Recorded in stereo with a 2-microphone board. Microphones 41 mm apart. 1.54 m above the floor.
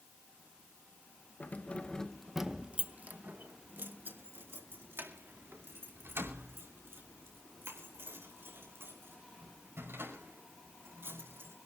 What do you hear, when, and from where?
1.4 s keys jangling: 45° left (ahead or behind), 0.8 m; by 11.5 s 80° right, 6.5 m